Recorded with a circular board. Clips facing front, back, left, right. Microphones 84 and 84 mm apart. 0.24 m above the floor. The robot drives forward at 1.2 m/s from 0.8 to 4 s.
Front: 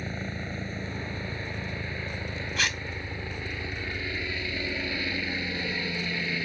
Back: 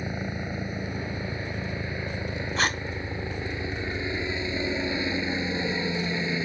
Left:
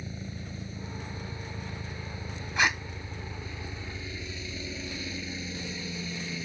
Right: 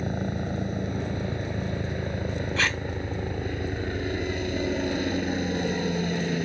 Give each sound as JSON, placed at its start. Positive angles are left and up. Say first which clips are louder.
{"t": 0.0, "sound": "a helicopter", "louder": "back 3 dB, right 11 dB", "azimuth_deg": -105}
{"t": 2.6, "sound": "tape being pulled", "louder": "back 4 dB, left 2 dB", "azimuth_deg": 150}